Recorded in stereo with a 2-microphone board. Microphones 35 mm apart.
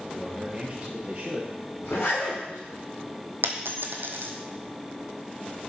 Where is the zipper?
55° left (ahead or behind), 4.5 m.